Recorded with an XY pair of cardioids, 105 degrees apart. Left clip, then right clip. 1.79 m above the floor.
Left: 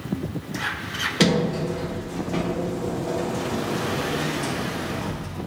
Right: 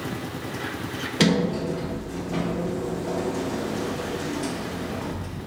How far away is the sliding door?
About 1.3 m.